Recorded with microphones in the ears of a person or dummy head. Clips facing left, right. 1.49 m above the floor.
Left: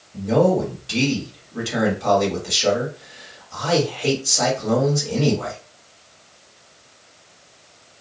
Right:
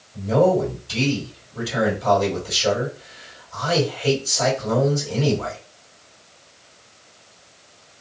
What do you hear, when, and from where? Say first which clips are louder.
0.1 s a man speaking: even; 80° left, 1.5 m